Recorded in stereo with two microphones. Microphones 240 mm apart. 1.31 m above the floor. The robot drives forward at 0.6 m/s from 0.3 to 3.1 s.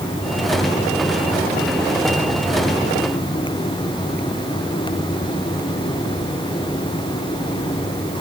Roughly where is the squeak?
I don't hear a squeak.